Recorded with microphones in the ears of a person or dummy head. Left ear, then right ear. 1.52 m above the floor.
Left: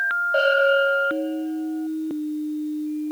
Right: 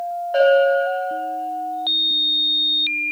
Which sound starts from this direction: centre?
A bell, at 0.3 s.